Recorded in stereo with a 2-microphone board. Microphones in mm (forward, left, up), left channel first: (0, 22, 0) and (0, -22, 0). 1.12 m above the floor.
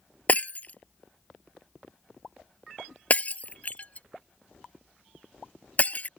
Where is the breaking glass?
35° left (ahead or behind).